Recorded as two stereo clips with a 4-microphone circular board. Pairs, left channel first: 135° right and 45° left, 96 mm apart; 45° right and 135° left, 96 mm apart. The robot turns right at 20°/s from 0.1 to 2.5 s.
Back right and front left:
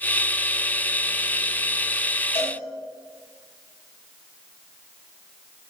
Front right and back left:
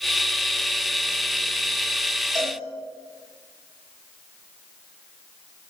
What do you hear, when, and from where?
2.4 s a cowbell: 130° right, 2.5 m; by 2.6 s 125° right, 2.5 m